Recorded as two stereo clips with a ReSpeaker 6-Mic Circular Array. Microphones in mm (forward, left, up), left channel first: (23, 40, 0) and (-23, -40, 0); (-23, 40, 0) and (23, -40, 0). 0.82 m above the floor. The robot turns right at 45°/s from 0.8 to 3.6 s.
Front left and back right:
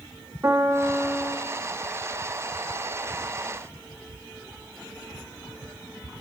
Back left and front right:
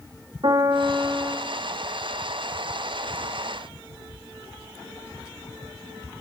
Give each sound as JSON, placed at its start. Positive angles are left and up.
{"t": 0.4, "sound": "a piano", "azimuth_deg": -65, "distance_m": 1.1}